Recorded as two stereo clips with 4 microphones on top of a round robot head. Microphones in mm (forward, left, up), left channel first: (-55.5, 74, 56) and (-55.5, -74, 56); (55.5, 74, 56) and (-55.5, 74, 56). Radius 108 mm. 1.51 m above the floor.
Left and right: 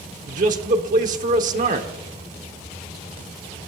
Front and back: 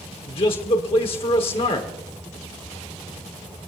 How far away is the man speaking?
About 1.2 m.